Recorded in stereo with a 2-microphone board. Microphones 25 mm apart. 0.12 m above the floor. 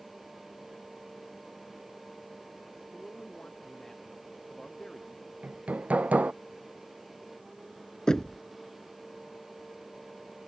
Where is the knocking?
30° left (ahead or behind).